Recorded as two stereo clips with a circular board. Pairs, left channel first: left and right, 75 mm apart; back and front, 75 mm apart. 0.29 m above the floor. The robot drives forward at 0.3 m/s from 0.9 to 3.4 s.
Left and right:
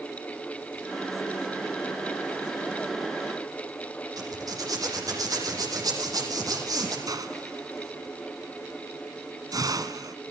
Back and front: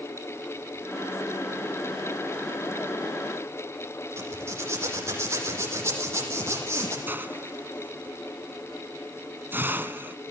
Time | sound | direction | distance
4.2 | a zipper | 55° right | 7 m
7.1 | a hiss | 60° right | 1.7 m